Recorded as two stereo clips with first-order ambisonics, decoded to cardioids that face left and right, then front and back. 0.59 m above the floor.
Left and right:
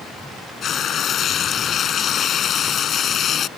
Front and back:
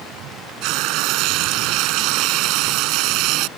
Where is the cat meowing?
I don't hear a cat meowing.